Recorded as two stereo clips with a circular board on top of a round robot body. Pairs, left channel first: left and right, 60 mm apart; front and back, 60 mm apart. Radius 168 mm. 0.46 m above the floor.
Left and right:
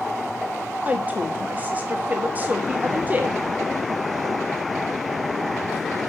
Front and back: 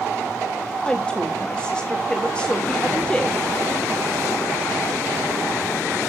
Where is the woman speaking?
60° right, 1.4 m.